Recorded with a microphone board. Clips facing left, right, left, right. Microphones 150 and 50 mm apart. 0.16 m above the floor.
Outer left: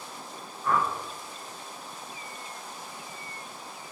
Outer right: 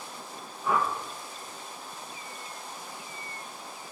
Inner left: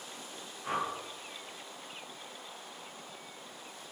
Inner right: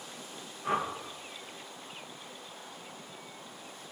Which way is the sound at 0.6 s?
5° right (ahead or behind).